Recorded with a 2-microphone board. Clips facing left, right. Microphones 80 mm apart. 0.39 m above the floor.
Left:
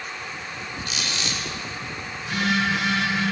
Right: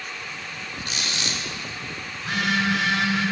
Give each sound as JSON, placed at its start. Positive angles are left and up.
{"t": 0.8, "sound": "a squeak", "side_deg": -40, "distance_m": 0.9}
{"t": 2.2, "sound": "a phone buzzing", "side_deg": -60, "distance_m": 3.5}